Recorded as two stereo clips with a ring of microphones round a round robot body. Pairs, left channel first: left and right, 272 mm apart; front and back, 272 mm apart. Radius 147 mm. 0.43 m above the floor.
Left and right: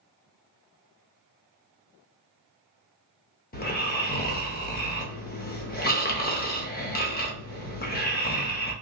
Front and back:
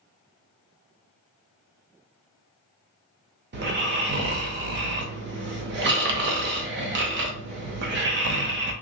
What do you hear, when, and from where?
3.5 s snoring: 140° left, 0.6 m